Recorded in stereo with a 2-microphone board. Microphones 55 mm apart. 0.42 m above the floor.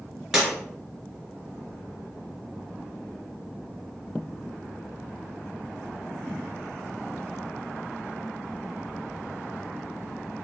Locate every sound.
0.3 s breaking glass: centre (ahead or behind), 2.5 m